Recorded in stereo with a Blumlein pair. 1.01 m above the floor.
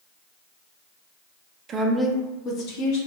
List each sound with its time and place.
1.7 s a woman speaking: 25° right, 0.6 m; by 3.0 s 45° left, 1.0 m